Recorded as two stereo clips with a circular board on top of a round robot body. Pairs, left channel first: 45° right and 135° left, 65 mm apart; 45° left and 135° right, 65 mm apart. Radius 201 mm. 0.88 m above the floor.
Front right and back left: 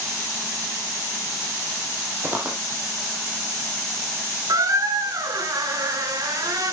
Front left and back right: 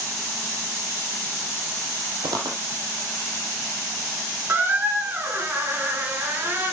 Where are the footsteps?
160° right, 1.5 m.